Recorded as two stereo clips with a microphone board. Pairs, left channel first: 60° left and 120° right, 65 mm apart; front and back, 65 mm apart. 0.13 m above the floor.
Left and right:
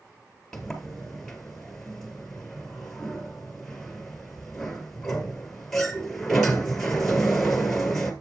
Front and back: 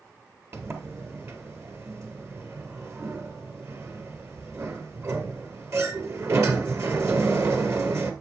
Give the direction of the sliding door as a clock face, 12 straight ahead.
7 o'clock.